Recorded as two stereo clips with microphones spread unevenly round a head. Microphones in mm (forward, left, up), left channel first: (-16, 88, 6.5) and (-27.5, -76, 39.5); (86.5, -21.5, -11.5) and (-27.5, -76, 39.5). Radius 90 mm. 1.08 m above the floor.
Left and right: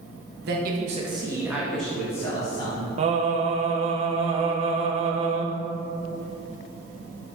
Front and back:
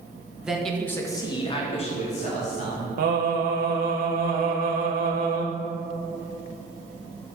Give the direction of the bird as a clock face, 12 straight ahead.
I don't hear a bird.